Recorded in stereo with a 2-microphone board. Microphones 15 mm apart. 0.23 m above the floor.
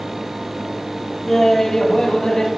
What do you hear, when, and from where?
1.3 s laughter: 20° left (ahead or behind), 1.0 m; by 2.5 s 50° left (ahead or behind), 1.4 m